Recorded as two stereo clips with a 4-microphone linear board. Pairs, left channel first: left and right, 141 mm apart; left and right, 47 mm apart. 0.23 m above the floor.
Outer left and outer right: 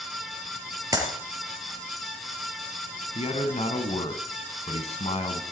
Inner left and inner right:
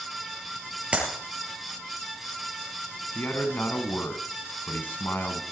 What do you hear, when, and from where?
0.9 s a clap: 25° right (ahead or behind), 3.5 m
3.1 s a man speaking: 50° left (ahead or behind), 2 m